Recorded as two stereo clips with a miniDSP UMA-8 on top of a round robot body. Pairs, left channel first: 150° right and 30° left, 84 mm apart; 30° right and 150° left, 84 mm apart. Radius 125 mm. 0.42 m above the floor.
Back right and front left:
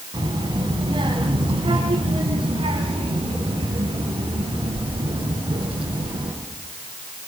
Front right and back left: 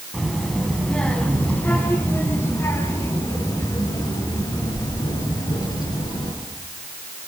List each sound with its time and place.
0.1 s a child speaking: 65° left, 3.5 m; by 6.3 s 5° left, 6 m